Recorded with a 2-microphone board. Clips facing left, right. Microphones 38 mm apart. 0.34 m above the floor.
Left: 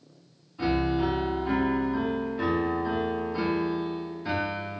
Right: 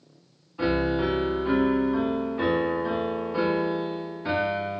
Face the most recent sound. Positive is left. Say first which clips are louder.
# right 1 dB
turn(degrees=-30)  # may be behind; listen again after turning